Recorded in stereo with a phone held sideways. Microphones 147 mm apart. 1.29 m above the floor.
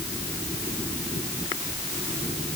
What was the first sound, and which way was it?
Only background noise.